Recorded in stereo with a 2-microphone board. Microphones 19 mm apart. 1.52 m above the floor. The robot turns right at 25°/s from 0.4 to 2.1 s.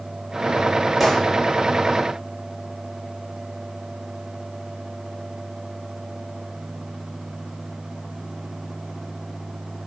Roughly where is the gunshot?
Centre.